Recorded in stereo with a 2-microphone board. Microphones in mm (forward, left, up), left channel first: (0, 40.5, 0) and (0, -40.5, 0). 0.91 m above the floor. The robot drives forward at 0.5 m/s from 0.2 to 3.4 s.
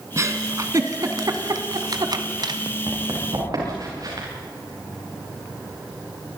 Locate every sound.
0.2 s a giggle: 40° right (ahead or behind), 2 m; by 2.6 s 60° right (ahead or behind), 1.5 m
2.9 s running footsteps: 50° right (ahead or behind), 9.5 m; by 4.3 s 55° right (ahead or behind), 9 m